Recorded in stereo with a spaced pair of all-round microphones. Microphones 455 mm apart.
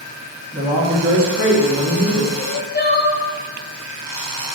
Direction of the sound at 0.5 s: 30° right (ahead or behind).